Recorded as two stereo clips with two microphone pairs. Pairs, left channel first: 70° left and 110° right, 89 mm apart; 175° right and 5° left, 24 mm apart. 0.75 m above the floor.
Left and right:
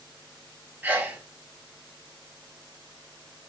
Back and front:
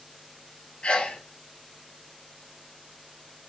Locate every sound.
0.8 s a sneeze: 170° right, 0.8 m